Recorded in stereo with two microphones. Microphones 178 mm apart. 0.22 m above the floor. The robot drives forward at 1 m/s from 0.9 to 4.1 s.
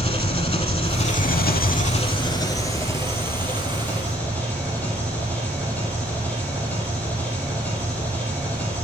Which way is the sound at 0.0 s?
35° left (ahead or behind).